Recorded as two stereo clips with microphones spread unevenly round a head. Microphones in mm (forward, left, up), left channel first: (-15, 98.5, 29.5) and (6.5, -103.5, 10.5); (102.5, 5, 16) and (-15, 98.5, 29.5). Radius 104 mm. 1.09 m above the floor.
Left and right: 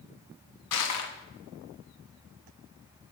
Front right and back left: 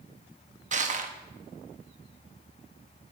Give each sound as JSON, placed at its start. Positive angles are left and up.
{"t": 0.7, "sound": "crushing", "azimuth_deg": 100, "distance_m": 1.4}